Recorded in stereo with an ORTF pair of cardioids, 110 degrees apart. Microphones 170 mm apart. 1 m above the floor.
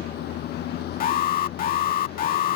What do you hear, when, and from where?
0.0 s a vehicle: 70° left
1.0 s an alarm: 60° left